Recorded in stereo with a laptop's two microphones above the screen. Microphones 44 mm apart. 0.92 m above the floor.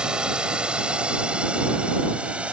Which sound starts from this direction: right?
A drone, at 0.0 s.